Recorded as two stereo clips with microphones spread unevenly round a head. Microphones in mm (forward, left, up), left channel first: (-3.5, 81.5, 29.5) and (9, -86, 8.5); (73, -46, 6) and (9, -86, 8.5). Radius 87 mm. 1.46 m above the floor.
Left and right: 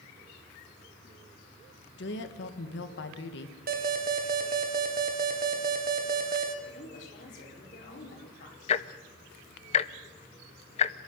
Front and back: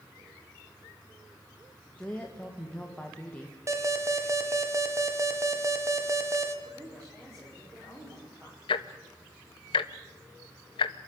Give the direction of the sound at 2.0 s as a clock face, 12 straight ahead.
8 o'clock.